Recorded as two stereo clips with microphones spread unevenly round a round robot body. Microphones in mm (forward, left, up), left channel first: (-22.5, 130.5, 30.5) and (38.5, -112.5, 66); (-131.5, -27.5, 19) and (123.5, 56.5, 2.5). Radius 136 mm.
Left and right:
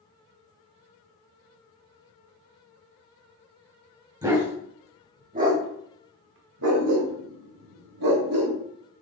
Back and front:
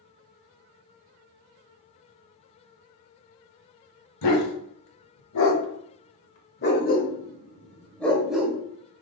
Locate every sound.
4.2 s a dog barking: 150° right, 1.9 m; by 8.6 s 70° right, 1.5 m